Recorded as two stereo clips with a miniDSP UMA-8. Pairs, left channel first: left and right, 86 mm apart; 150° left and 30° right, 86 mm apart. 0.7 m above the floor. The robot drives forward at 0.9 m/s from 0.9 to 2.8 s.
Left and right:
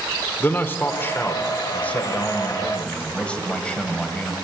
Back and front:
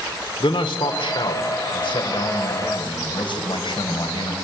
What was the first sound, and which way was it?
A man speaking, 155° left.